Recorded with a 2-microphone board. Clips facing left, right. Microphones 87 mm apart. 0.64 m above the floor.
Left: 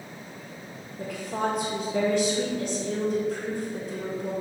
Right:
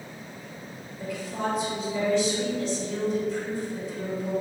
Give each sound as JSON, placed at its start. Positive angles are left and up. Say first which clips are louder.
{"t": 1.0, "sound": "a woman speaking", "louder": "left 2 dB", "side_deg": 60, "distance_m": 1.8}